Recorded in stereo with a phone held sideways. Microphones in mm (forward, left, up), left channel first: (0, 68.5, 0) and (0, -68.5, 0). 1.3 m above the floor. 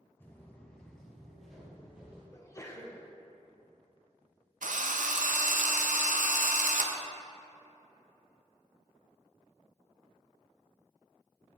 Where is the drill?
75° right (ahead or behind), 0.5 m.